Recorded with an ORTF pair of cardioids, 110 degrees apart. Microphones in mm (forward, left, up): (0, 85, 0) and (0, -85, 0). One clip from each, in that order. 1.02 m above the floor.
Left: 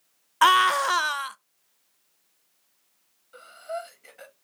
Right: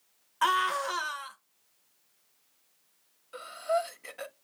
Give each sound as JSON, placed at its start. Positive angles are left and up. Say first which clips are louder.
{"t": 0.4, "sound": "a scream", "louder": "left 8 dB", "azimuth_deg": 45, "distance_m": 0.5}
{"t": 3.3, "sound": "breathing", "louder": "right 5 dB", "azimuth_deg": -30, "distance_m": 0.7}